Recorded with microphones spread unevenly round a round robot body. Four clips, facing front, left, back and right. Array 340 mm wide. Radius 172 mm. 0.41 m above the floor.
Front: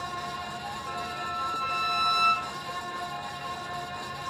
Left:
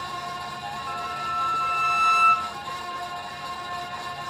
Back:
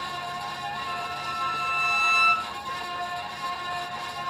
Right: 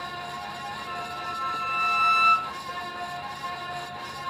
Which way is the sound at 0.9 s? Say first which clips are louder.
Left 6 dB, back 2 dB; 65° left.